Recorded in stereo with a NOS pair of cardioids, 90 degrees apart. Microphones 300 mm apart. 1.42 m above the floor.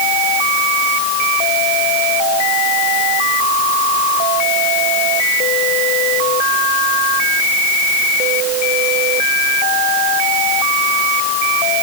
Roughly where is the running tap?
No running tap in this recording.